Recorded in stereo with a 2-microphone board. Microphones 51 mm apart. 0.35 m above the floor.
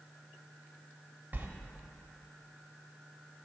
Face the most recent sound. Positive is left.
turn(degrees=-35)  # may be behind; listen again after turning